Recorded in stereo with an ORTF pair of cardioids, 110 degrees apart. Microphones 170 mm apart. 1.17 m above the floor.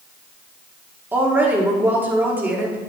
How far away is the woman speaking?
About 2.5 m.